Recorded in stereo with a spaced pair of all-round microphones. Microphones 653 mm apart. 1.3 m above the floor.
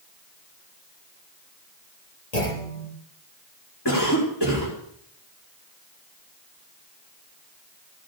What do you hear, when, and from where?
2.3 s a clunk: 75° left (ahead or behind), 5.5 m
3.9 s a cough: 35° left (ahead or behind), 4 m